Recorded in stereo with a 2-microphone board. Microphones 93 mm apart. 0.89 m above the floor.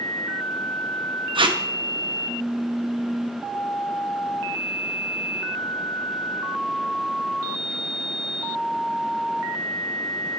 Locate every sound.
1.4 s tape being pulled: 65° right (ahead or behind), 0.5 m